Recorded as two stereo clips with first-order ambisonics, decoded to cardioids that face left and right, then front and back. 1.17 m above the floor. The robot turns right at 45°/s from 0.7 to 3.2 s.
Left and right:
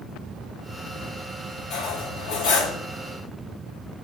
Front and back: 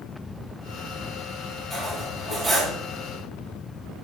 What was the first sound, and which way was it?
Cutlery clinking, 70° left.